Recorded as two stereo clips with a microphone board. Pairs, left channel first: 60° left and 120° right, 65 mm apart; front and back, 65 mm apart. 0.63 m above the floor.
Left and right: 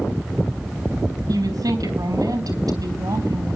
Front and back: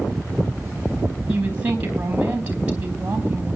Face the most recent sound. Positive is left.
turn(degrees=-115)